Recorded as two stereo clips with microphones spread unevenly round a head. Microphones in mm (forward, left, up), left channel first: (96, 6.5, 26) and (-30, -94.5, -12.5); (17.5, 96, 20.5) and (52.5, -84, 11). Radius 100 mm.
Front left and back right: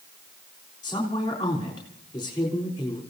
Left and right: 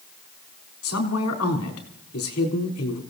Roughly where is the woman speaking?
Left.